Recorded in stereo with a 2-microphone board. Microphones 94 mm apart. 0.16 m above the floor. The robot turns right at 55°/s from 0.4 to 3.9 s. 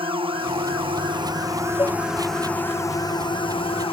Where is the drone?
100° right; by 3.9 s 90° left.